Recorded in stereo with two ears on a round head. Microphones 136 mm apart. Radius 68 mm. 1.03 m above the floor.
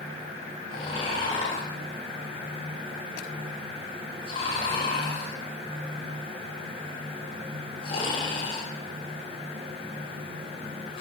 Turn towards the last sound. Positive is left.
turn(degrees=35)  # may be behind; listen again after turning